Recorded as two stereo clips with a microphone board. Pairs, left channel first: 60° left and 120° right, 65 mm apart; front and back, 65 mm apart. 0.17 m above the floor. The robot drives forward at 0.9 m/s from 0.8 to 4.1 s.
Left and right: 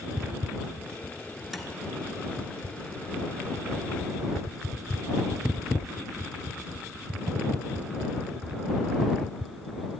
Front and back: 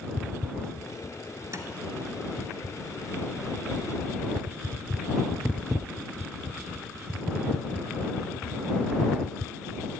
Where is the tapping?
150° left, 0.9 m; by 1.7 s 155° left, 1.0 m.